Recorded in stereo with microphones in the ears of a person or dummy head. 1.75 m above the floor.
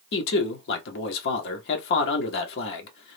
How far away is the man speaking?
About 0.8 m.